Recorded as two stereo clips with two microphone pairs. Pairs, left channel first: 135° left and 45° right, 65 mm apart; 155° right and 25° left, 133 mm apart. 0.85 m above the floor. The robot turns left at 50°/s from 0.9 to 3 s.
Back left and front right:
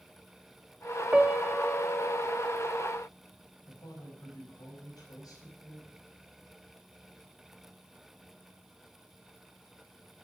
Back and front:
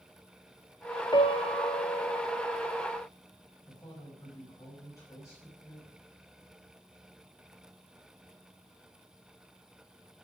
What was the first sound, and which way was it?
A piano, 115° right.